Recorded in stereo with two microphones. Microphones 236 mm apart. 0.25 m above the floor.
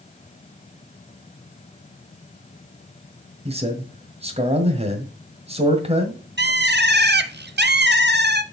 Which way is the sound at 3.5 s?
25° right (ahead or behind).